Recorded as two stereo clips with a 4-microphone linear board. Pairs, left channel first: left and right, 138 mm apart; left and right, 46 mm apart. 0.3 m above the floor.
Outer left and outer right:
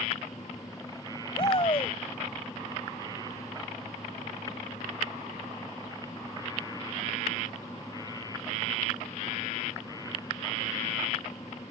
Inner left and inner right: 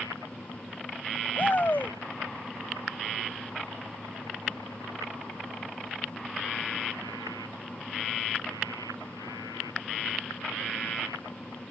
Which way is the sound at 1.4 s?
45° left (ahead or behind).